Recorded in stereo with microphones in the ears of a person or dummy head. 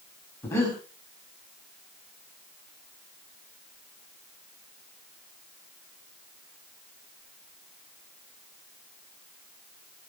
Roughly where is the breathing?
Centre.